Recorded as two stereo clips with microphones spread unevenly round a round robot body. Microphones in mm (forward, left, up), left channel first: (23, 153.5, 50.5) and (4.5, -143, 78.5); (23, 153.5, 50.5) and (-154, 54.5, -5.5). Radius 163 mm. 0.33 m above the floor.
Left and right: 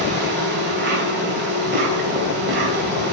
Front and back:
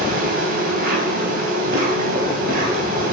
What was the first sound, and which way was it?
An insect, 145° right.